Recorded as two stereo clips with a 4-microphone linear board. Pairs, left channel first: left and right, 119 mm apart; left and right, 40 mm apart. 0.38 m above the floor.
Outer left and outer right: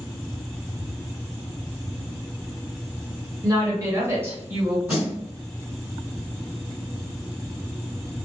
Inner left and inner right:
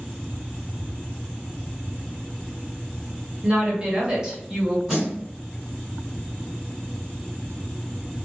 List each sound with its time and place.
3.4 s a woman speaking: 35° right (ahead or behind), 1.1 m; by 4.8 s 15° right (ahead or behind), 1.4 m
4.9 s a snare drum: 10° right (ahead or behind), 1.9 m